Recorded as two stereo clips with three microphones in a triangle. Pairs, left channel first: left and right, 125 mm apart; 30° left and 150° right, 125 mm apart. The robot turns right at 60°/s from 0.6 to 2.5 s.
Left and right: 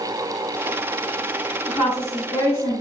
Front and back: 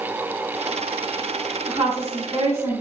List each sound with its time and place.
1.7 s a woman speaking: straight behind, 1.9 m; by 2.8 s 130° right, 1.9 m